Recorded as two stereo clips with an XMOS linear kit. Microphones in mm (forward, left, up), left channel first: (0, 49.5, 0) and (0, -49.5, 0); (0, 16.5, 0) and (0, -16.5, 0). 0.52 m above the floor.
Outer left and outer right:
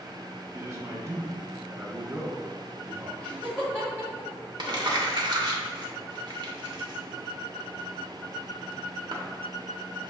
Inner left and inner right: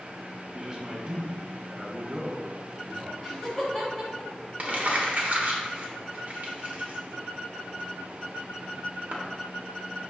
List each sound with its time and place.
0.5 s a man speaking: 30° right (ahead or behind), 0.7 m
3.2 s laughter: 20° left (ahead or behind), 1.9 m
4.6 s crumpling: 50° right (ahead or behind), 0.8 m